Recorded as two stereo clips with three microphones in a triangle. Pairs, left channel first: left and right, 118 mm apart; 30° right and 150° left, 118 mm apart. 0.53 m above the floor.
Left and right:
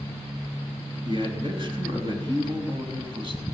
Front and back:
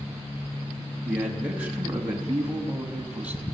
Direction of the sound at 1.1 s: 135° right.